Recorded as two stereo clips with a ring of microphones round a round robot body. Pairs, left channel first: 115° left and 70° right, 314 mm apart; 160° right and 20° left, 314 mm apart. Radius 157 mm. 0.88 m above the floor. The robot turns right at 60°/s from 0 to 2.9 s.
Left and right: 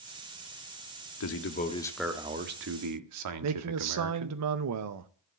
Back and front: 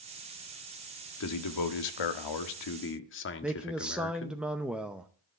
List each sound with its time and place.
1.2 s a man speaking: 155° left, 1.4 m; by 4.4 s 105° right, 1.4 m
3.4 s a man speaking: 65° right, 0.7 m